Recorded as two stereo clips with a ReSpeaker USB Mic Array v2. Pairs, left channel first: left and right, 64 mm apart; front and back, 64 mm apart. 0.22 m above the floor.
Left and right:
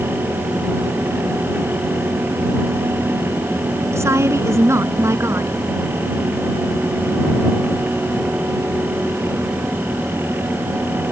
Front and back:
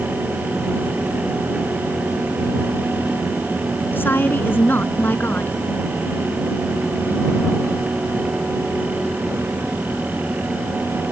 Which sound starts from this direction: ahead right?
A woman speaking, at 3.9 s.